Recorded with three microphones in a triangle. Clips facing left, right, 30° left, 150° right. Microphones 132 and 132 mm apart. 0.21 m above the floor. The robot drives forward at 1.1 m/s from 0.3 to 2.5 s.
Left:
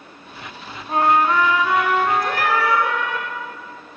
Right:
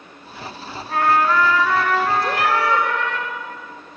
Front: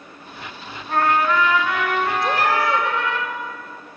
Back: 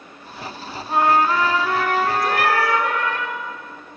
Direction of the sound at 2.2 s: 30° right.